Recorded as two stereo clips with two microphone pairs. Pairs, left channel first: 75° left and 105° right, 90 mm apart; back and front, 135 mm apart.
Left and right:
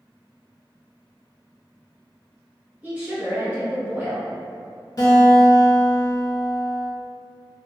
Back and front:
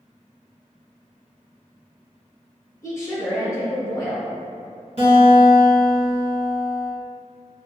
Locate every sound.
2.8 s a woman speaking: 145° right, 1.2 m
5.0 s a guitar: 30° left, 1.9 m